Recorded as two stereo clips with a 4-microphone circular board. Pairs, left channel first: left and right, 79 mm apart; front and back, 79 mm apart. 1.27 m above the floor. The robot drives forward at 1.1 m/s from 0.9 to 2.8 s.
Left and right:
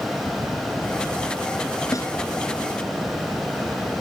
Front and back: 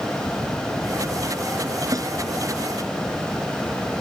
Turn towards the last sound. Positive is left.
turn(degrees=140)